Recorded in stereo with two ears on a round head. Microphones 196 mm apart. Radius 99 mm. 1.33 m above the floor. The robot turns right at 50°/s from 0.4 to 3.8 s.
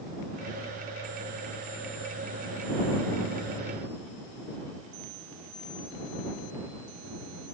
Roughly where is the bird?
I don't hear a bird.